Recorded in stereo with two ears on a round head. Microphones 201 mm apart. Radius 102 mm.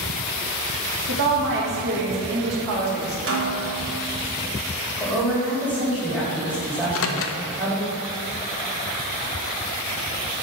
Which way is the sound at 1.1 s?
55° right (ahead or behind).